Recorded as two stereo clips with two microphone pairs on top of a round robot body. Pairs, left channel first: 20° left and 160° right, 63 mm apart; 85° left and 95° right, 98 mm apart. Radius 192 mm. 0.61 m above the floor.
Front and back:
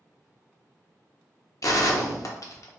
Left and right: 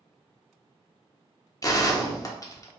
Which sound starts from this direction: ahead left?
A gunshot, at 1.6 s.